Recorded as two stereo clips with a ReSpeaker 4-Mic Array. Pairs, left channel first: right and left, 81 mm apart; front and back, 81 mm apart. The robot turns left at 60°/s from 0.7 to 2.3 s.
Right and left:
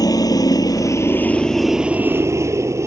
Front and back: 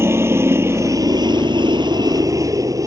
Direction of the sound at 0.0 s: 125° right.